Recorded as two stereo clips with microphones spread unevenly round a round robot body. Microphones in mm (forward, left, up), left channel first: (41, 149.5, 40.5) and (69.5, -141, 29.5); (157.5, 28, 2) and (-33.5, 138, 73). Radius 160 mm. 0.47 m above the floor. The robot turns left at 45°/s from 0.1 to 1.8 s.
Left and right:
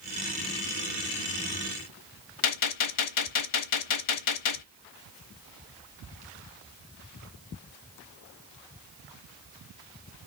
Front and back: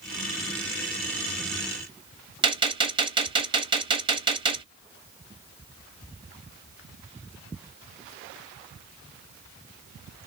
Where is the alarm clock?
I don't hear an alarm clock.